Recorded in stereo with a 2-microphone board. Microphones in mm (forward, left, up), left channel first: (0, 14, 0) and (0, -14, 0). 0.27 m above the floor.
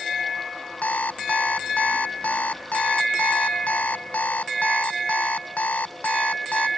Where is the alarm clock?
70° left (ahead or behind).